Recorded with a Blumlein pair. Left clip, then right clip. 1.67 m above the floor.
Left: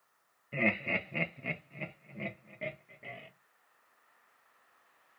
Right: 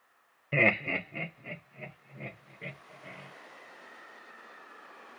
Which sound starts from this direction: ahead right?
Laughter, at 0.5 s.